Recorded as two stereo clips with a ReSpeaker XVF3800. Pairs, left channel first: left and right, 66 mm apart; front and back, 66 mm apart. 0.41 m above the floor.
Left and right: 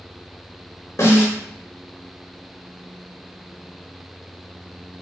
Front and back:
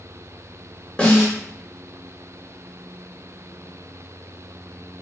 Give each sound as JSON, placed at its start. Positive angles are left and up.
{"t": 1.0, "sound": "a snare drum", "azimuth_deg": 65, "distance_m": 1.2}